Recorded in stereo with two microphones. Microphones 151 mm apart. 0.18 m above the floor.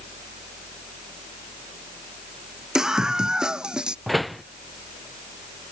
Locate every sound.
2.8 s a scream: 5° right (ahead or behind)
4.1 s a door slam: centre (ahead or behind)